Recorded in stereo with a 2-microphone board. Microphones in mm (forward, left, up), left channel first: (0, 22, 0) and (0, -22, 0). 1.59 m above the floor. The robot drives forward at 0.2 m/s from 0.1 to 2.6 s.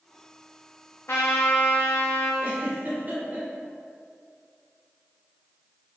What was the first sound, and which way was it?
A trumpet, 75° left (ahead or behind).